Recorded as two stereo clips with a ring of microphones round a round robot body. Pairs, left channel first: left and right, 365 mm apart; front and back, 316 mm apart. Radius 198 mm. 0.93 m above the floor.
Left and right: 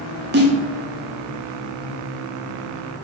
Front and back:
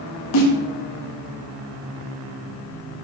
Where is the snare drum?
30° right, 1.9 m.